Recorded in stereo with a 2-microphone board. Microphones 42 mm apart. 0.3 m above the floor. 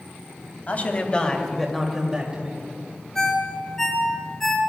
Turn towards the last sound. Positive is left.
turn(degrees=10)  # may be behind; listen again after turning